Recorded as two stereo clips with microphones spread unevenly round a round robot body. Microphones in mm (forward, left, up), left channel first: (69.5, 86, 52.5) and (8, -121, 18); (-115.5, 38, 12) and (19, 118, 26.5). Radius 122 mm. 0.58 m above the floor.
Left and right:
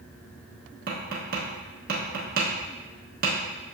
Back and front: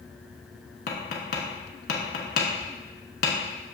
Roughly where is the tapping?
Behind.